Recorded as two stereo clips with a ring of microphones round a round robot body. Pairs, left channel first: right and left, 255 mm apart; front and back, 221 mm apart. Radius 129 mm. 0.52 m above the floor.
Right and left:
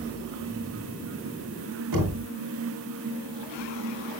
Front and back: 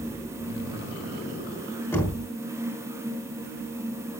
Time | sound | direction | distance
1.9 | knocking | 80° left | 5 m